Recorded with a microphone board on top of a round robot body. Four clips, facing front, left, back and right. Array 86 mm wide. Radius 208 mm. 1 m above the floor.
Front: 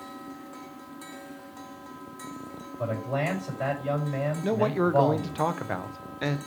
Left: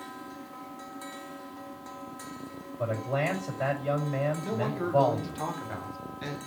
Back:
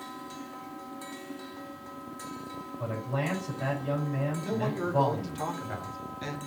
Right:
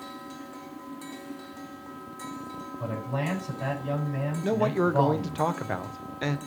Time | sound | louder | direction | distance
2.8 | a man speaking | left 3 dB, front 4 dB | 45° left | 4.5 m
4.4 | a man speaking | right 6 dB, front 10 dB | 40° right | 1.0 m